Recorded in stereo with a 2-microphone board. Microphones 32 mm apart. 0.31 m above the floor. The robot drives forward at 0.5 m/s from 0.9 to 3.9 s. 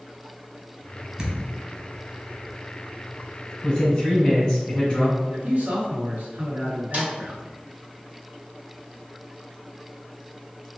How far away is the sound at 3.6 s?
About 2.0 m.